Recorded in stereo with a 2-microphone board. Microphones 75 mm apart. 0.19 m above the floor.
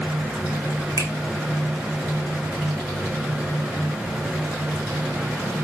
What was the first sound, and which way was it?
A finger snap, 50° right (ahead or behind).